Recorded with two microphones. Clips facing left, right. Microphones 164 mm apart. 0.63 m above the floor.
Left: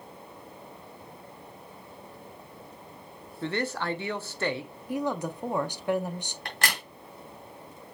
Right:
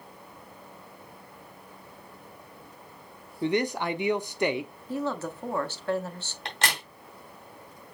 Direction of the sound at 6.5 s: 25° right (ahead or behind).